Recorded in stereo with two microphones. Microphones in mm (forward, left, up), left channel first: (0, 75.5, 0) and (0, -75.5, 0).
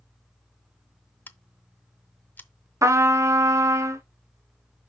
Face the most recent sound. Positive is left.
turn(degrees=-20)  # may be behind; listen again after turning